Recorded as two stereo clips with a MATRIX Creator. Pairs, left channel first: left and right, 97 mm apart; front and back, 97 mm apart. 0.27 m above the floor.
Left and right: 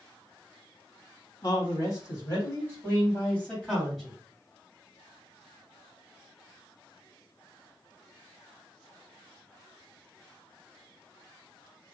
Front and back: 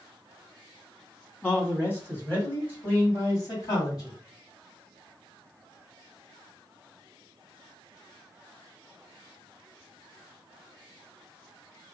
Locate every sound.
1.4 s a man speaking: 65° left, 1.9 m; by 4.2 s straight ahead, 1.8 m